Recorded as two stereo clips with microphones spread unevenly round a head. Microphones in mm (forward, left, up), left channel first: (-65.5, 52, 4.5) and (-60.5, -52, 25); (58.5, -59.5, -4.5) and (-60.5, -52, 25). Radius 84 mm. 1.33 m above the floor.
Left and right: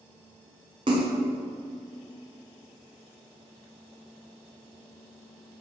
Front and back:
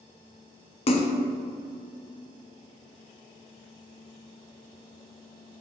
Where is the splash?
25° right, 1.0 m.